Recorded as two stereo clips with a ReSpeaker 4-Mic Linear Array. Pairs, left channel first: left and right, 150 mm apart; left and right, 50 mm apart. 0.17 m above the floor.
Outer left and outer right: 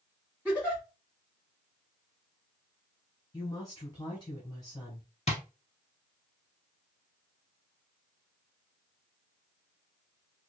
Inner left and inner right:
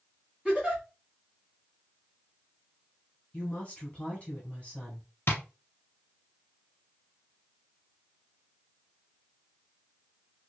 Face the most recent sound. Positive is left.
turn(degrees=45)  # may be behind; listen again after turning